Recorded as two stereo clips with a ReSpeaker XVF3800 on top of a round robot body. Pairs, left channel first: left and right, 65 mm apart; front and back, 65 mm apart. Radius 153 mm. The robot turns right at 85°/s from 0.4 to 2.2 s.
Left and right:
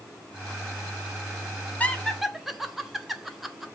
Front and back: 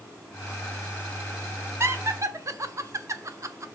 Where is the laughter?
150° left, 1.6 m; by 3.6 s 175° right, 1.6 m.